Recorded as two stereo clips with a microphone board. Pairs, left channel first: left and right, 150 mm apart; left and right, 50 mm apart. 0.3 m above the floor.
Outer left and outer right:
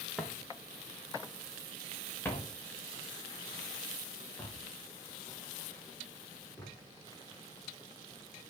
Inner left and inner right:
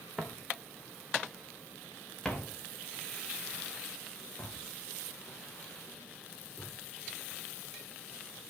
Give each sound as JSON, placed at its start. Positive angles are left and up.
{"t": 0.2, "sound": "footsteps", "side_deg": 5, "distance_m": 3.0}